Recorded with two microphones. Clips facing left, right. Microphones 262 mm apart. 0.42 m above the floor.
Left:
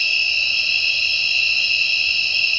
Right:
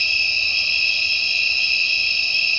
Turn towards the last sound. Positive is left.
turn(degrees=5)  # may be behind; listen again after turning